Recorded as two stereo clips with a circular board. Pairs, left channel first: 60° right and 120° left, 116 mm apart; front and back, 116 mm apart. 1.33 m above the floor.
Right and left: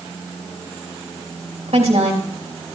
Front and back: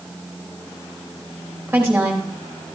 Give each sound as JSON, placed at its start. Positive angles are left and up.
{"t": 1.7, "sound": "a woman speaking", "azimuth_deg": 110, "distance_m": 3.0}